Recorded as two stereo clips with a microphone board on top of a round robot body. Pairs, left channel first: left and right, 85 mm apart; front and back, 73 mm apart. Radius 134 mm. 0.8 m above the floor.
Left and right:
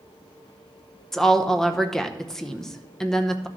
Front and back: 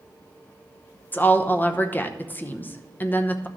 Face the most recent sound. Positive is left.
turn(degrees=15)